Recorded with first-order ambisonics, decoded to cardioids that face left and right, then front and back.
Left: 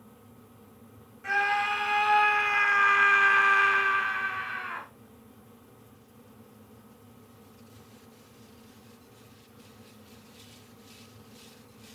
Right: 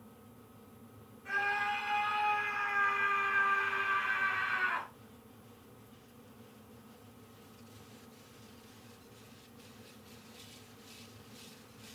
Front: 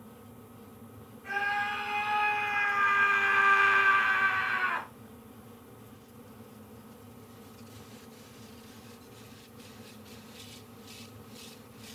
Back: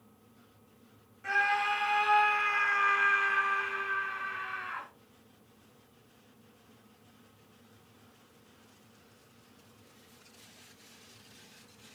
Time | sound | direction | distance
1.2 | a scream | 115° left | 3.5 m